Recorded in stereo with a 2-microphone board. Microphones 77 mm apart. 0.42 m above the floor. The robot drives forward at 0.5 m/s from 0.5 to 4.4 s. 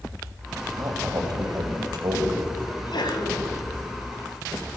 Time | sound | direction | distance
0.8 | a man speaking | 60° right (ahead or behind) | 2.5 m
2.7 | a sneeze | 70° left (ahead or behind) | 2.5 m